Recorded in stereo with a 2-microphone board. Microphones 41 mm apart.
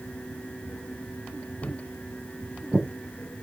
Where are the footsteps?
70° right (ahead or behind), 1.8 m; by 2.9 s 35° right (ahead or behind), 1.0 m.